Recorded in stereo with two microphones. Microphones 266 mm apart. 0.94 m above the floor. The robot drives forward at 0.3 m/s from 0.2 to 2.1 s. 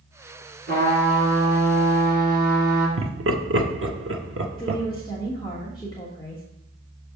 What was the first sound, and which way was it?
A trumpet, 40° right (ahead or behind).